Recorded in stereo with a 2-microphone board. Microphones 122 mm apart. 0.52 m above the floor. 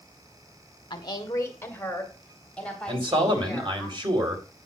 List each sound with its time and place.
0.9 s a woman speaking: 40° left (ahead or behind), 1.3 m; by 3.9 s 5° left (ahead or behind), 5 m
2.9 s a man speaking: 45° right (ahead or behind), 2.5 m